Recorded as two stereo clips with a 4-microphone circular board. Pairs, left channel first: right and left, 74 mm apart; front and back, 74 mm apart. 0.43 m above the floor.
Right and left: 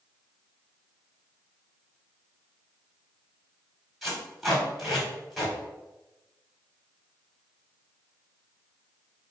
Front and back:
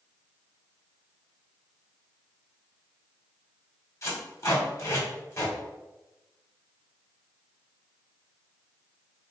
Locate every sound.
4.0 s tape being pulled: 5° left, 1.4 m